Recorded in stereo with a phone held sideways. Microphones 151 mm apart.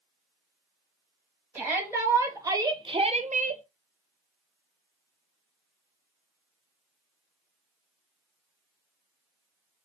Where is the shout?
15° right (ahead or behind), 2 m; by 3.6 s 55° right (ahead or behind), 0.6 m.